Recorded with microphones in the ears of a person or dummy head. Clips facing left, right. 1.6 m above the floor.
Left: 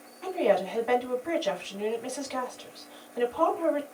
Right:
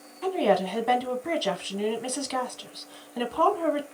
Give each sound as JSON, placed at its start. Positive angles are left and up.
{"t": 0.2, "sound": "a woman speaking", "side_deg": -60, "distance_m": 1.0}